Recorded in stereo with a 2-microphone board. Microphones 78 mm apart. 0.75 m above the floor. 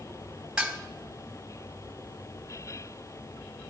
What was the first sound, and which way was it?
Dishes clattering, 5° right (ahead or behind).